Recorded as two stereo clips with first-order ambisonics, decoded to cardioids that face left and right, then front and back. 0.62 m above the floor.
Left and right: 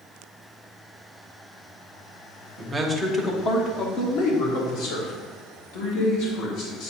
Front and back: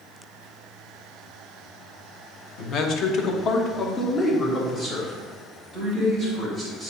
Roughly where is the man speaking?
Ahead.